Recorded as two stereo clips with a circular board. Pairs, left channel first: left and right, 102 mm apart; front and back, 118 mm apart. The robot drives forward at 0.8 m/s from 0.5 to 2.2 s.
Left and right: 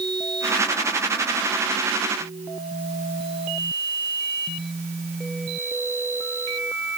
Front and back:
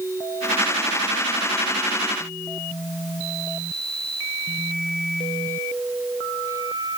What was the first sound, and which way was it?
Only background noise.